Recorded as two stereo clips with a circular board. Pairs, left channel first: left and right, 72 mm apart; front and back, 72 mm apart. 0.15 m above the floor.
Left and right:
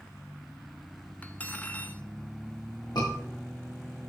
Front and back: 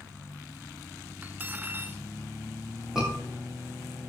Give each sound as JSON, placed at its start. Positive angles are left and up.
{"t": 1.2, "sound": "cutlery clinking", "azimuth_deg": 140, "distance_m": 0.9}
{"t": 3.0, "sound": "a scream", "azimuth_deg": 100, "distance_m": 9.0}